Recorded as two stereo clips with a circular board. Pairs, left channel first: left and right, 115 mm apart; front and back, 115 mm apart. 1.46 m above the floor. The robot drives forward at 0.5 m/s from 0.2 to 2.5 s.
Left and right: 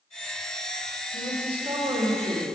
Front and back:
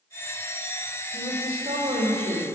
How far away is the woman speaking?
About 2.5 m.